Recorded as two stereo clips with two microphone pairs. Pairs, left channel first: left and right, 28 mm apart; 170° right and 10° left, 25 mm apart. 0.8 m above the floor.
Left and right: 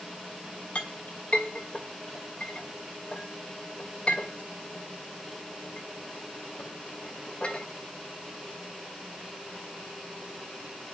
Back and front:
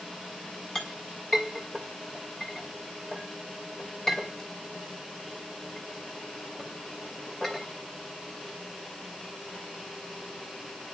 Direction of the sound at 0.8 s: 130° left.